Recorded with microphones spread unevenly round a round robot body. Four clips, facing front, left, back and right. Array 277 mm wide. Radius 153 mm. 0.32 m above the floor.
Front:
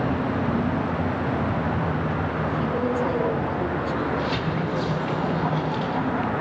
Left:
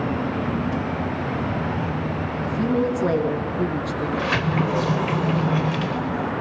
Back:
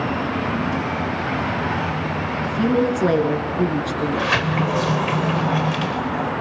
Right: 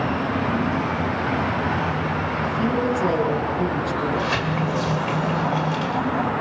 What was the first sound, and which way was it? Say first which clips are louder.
A woman speaking: left 1 dB, back 8 dB; 175° left.